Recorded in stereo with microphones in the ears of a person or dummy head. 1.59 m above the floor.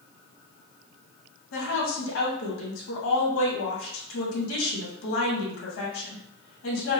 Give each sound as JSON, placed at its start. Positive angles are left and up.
{"t": 1.5, "sound": "a woman speaking", "side_deg": 85, "distance_m": 1.5}